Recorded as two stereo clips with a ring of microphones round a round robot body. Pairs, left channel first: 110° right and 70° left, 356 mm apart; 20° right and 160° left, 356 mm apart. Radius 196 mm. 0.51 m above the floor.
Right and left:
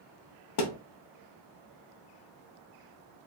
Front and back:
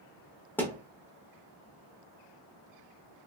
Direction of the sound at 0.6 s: 105° right.